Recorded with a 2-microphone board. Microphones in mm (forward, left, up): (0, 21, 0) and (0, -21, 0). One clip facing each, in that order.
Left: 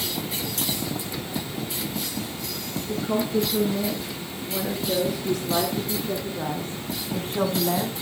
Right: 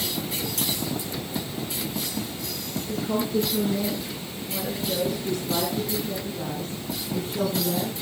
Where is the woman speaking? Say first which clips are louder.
Left 1 dB; 15° left (ahead or behind), 3.5 m; by 7.9 s 50° left (ahead or behind), 2.0 m.